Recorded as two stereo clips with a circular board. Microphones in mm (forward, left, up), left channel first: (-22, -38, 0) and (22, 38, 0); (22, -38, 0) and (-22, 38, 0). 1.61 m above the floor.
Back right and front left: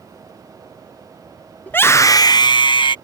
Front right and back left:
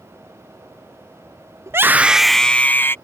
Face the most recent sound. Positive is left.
turn(degrees=-120)